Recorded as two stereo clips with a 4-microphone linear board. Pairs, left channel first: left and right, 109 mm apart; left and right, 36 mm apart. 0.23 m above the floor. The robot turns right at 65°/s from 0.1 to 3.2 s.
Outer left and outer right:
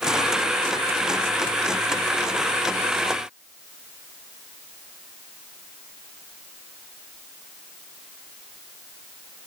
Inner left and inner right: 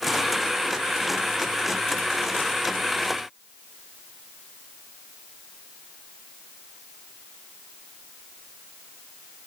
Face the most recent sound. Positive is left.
No sound to turn to.